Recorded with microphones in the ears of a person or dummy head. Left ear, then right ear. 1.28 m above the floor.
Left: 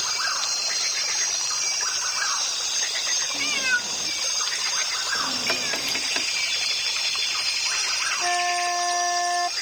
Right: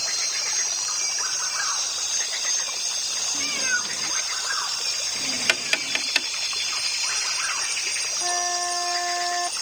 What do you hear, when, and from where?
3.3 s a cat meowing: 10° left (ahead or behind); by 6.0 s 15° left (ahead or behind)
5.5 s tapping: 65° right (ahead or behind)
8.2 s a flute: 10° left (ahead or behind)